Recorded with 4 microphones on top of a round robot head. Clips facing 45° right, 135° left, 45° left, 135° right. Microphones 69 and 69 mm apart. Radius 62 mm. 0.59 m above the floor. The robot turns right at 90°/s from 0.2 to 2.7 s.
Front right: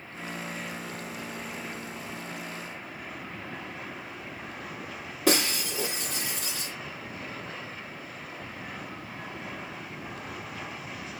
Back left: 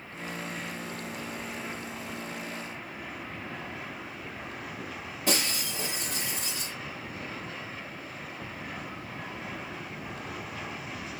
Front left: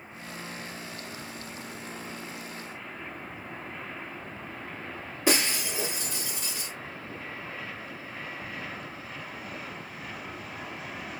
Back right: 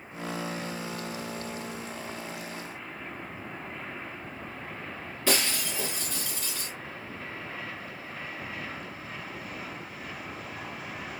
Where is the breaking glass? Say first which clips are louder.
Front right 5 dB, front left 2 dB; 30° right, 2 m.